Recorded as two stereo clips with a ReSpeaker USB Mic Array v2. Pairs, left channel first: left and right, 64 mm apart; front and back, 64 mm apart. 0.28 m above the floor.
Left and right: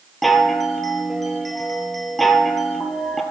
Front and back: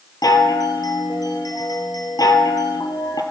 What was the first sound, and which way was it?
A chime, 5° left.